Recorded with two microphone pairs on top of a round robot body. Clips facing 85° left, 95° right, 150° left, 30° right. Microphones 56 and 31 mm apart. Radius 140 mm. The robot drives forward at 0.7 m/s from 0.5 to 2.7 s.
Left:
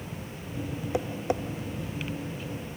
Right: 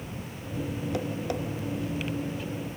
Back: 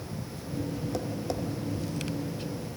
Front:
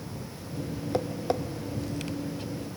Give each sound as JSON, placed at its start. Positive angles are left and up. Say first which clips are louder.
{"t": 0.9, "sound": "tapping", "louder": "left 4 dB, front 8 dB", "azimuth_deg": 15, "distance_m": 1.4}